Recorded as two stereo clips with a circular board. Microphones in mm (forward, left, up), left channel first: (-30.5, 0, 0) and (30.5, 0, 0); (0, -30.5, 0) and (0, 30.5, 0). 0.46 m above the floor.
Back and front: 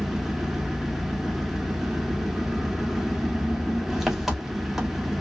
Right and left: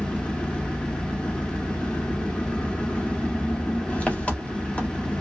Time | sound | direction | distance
0.0 | an engine running | 75° right | 0.9 m